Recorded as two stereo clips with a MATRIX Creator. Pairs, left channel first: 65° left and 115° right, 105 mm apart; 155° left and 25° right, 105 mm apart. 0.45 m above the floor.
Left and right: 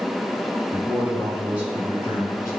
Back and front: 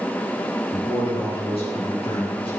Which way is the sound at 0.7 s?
170° left.